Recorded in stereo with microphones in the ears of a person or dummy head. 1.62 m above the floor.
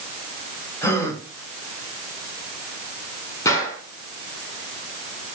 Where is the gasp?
20° left (ahead or behind), 3 m.